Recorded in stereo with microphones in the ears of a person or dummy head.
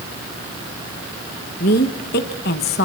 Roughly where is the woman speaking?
Left.